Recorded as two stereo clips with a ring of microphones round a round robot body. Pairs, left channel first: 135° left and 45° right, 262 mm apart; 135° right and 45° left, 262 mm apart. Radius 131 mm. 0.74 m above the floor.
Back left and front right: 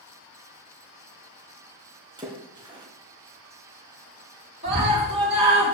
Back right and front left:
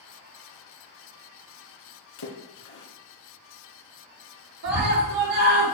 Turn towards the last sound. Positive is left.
turn(degrees=20)